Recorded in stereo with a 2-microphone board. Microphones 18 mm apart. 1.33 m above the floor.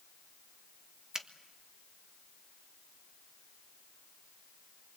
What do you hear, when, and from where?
1.1 s a finger snap: 35° right (ahead or behind), 1.3 m